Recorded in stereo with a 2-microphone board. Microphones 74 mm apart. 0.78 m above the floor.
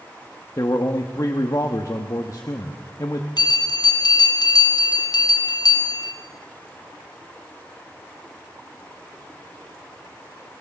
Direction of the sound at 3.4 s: 60° left (ahead or behind).